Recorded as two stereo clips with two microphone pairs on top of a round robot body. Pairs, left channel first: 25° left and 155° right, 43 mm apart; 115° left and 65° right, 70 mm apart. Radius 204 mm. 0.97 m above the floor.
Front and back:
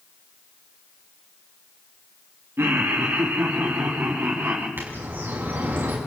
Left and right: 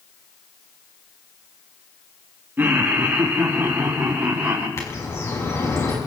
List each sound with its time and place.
2.6 s laughter: 125° right, 2.5 m; by 4.7 s 130° right, 5.5 m
4.8 s a bird: 160° left, 6 m